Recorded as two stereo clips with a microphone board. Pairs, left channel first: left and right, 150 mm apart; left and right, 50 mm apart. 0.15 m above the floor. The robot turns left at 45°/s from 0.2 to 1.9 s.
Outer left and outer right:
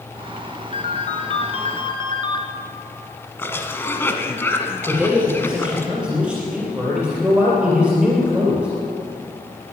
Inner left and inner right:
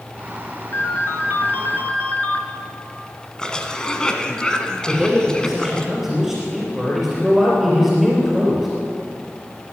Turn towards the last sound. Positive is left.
turn(degrees=-5)  # may be behind; listen again after turning